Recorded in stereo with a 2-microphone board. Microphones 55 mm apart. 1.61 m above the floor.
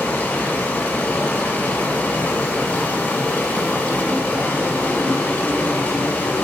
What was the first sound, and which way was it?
Running water, 30° left (ahead or behind).